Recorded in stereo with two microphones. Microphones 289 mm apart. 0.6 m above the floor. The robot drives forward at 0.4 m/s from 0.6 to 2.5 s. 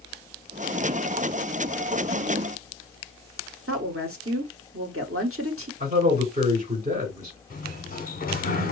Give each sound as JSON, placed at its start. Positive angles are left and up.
{"t": 3.7, "sound": "a woman speaking", "side_deg": -50, "distance_m": 1.2}
{"t": 5.8, "sound": "a man speaking", "side_deg": -20, "distance_m": 2.5}
{"t": 7.5, "sound": "a sliding door", "side_deg": 30, "distance_m": 0.8}